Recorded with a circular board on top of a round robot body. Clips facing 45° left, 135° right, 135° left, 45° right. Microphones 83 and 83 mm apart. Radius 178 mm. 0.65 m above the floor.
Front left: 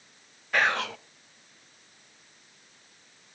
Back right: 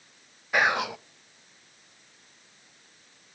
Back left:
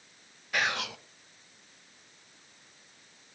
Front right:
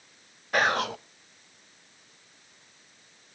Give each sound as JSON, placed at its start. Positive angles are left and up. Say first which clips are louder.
{"t": 0.5, "sound": "whispering", "louder": "back right 1 dB, front right 6 dB", "azimuth_deg": -65, "distance_m": 0.7}